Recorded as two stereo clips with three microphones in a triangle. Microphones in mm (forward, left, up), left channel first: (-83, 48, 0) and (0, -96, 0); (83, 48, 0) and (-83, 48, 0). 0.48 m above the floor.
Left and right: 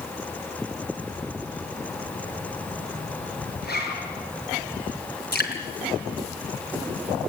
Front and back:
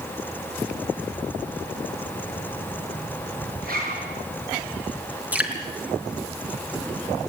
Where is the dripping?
100° left, 4.5 m.